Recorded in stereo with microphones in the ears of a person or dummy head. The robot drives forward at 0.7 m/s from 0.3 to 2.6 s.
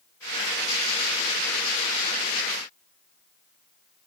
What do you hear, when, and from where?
Only background noise.